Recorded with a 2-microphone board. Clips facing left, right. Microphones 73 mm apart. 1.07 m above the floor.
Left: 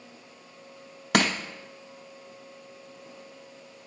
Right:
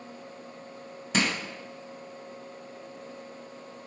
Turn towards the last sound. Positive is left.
turn(degrees=75)  # may be behind; listen again after turning